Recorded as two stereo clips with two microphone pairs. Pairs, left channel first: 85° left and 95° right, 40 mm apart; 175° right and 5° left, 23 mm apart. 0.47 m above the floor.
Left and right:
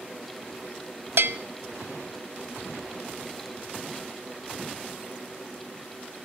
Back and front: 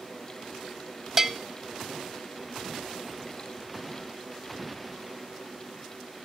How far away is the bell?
About 0.6 m.